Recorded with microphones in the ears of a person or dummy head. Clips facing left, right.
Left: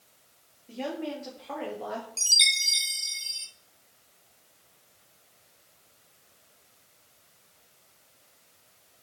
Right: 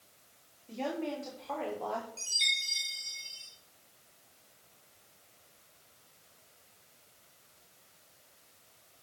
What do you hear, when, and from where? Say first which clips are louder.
0.7 s a woman speaking: left 2 dB; 15° left (ahead or behind), 3.5 m; by 2.1 s 25° left (ahead or behind), 2.5 m
2.2 s a chime: left 5 dB; 75° left (ahead or behind), 1.3 m